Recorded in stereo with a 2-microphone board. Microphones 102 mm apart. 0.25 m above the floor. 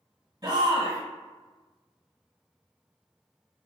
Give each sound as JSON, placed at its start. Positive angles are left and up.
{"t": 0.4, "sound": "a shout", "side_deg": -40, "distance_m": 1.5}